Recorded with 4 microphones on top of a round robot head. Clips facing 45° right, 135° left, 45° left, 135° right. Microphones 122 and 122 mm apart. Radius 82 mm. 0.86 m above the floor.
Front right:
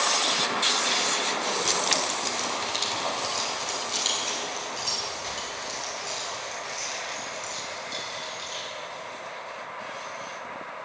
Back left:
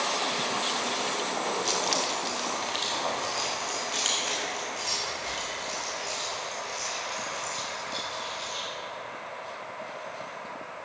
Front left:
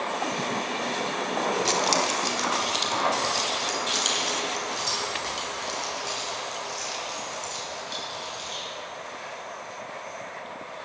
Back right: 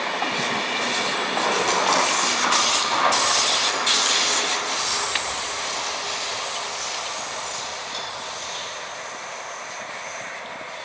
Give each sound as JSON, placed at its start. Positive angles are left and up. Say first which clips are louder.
{"t": 1.6, "sound": "keys jangling", "louder": "front right 1 dB, back right 4 dB", "azimuth_deg": -10, "distance_m": 1.1}